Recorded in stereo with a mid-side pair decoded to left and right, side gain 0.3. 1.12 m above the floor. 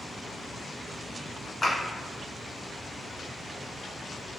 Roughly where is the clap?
Ahead left.